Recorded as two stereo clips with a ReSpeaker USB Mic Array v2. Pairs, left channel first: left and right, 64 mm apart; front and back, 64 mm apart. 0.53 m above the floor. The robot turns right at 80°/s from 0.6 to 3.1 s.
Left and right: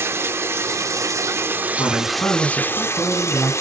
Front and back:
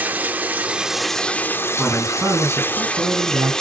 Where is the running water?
120° right, 1.0 m; by 3.6 s 80° left, 1.0 m.